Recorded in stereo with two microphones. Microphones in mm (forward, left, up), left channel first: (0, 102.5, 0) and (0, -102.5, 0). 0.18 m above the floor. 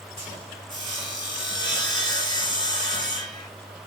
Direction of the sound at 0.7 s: 20° left (ahead or behind).